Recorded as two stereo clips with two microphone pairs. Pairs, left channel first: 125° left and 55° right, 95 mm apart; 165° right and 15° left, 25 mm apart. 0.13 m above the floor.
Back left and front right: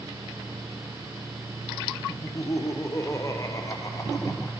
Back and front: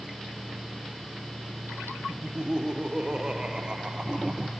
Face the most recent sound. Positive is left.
turn(degrees=70)